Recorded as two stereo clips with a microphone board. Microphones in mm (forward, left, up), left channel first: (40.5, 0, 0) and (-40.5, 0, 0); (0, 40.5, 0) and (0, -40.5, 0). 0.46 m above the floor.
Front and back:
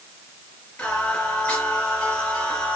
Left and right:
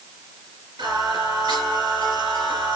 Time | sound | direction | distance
0.8 | singing | 75° right | 3 m